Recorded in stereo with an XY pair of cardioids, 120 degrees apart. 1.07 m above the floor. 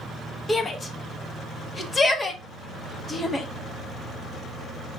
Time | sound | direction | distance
0.5 | a shout | 20° left | 1.0 m